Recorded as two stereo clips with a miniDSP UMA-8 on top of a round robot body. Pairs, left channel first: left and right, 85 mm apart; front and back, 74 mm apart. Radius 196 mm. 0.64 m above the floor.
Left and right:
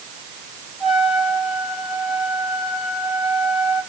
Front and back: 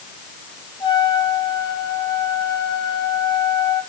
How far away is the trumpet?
About 9.5 m.